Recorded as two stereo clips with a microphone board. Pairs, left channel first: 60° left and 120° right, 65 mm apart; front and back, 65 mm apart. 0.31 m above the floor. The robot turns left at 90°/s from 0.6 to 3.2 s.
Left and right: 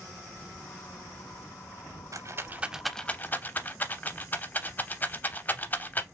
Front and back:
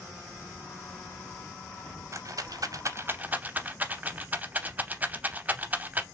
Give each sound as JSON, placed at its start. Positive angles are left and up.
{"t": 2.1, "sound": "a rattle", "azimuth_deg": -145, "distance_m": 0.5}